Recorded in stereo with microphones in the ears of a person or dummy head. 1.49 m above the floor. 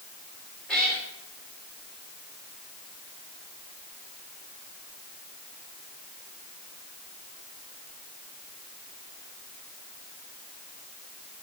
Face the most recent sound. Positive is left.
turn(degrees=5)  # may be behind; listen again after turning